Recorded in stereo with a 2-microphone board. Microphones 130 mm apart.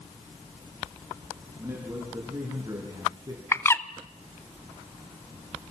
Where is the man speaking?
20° right (ahead or behind), 6 m; by 3.4 s 30° right (ahead or behind), 4 m.